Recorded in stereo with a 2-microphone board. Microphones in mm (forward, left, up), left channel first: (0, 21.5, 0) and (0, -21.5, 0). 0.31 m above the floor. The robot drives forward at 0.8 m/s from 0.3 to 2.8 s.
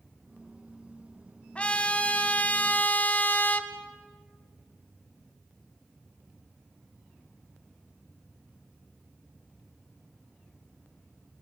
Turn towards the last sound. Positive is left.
turn(degrees=40)  # may be behind; listen again after turning